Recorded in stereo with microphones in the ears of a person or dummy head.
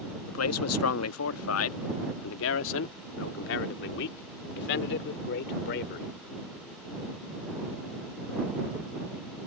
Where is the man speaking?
75° left (ahead or behind); by 6.1 s 60° left (ahead or behind).